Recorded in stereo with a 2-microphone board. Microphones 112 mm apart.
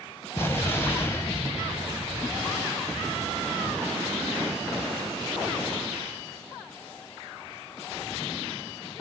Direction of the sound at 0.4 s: 20° left (ahead or behind).